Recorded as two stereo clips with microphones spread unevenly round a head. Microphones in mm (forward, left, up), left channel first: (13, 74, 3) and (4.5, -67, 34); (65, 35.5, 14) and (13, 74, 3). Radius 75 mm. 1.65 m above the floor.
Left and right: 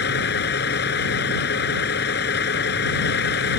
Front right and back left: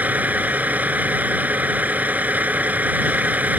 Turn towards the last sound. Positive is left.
turn(degrees=75)